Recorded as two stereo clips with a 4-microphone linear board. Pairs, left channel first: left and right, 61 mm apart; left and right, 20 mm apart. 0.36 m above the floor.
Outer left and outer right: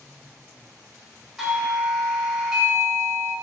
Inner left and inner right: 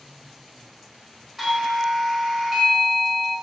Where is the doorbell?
5° right (ahead or behind), 1.9 m.